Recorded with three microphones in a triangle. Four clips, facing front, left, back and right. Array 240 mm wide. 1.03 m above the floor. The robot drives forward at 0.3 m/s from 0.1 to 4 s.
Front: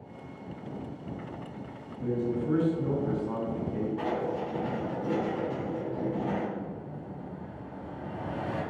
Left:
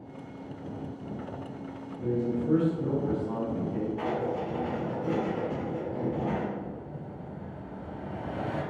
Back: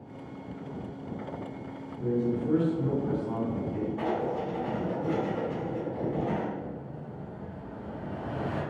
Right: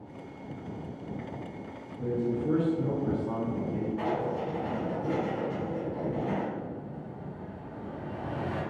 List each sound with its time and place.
2.0 s a man speaking: 100° right, 1.3 m; by 3.9 s 125° right, 1.5 m
4.0 s writing: 150° left, 1.4 m
6.5 s an explosion: 130° right, 0.7 m